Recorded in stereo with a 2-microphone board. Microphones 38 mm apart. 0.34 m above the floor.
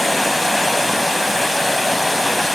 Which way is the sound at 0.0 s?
Centre (ahead or behind).